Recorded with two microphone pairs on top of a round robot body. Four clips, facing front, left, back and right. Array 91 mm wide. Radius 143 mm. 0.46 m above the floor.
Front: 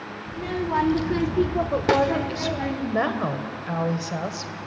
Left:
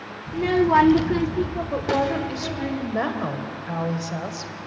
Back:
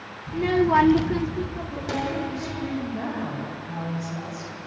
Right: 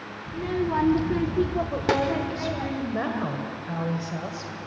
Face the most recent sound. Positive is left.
turn(degrees=20)